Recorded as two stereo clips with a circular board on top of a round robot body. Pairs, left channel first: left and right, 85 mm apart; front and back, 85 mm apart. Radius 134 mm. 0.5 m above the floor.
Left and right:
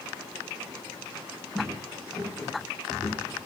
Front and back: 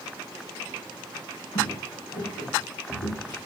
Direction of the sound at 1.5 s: 15° left.